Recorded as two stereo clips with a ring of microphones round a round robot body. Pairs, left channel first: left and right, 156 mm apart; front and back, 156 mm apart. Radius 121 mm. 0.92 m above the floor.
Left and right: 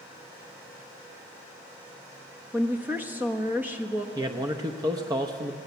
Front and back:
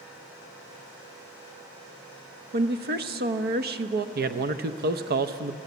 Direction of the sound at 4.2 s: 160° right.